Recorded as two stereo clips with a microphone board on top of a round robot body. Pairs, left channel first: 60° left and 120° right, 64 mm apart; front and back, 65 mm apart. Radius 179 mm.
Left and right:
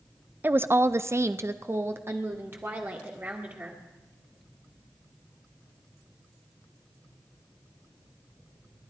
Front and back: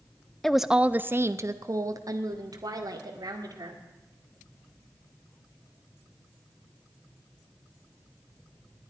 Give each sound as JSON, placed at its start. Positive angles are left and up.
{"t": 0.4, "sound": "a woman speaking", "azimuth_deg": -80, "distance_m": 0.8}